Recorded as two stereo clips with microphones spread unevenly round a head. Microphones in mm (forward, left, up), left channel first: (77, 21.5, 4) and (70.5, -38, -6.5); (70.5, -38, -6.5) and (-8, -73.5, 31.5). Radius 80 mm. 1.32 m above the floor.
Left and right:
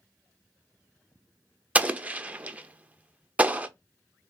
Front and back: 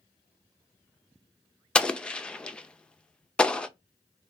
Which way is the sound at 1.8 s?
40° right.